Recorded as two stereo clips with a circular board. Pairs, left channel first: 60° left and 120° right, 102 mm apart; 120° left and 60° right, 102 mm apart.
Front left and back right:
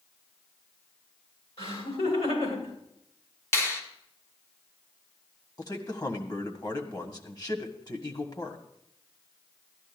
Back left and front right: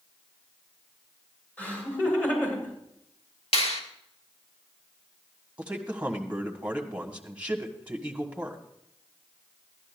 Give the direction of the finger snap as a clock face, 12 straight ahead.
8 o'clock.